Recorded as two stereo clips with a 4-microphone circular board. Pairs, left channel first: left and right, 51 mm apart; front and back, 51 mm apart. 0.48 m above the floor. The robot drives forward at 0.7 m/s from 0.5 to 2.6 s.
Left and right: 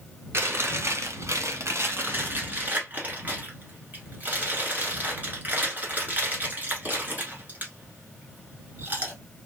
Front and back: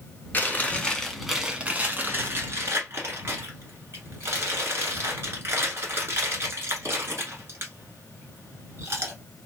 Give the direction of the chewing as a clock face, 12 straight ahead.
2 o'clock.